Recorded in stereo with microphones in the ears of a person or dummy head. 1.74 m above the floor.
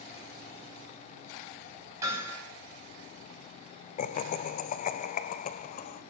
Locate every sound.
2.0 s hammering: 20° right (ahead or behind), 9.5 m
4.0 s laughter: 45° left (ahead or behind), 1.1 m